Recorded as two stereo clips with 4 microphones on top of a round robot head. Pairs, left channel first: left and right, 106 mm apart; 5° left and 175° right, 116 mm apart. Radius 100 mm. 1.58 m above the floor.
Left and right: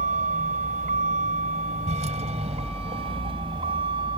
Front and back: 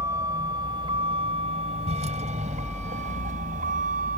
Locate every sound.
0.0 s a vehicle: 105° right; by 4.2 s 150° right